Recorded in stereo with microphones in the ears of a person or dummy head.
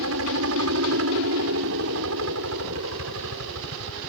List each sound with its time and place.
0.0 s a helicopter: 75° right (ahead or behind)